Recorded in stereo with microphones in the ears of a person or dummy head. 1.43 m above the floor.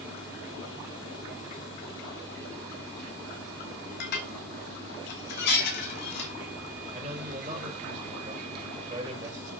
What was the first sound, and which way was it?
Dishes clattering, 55° left (ahead or behind).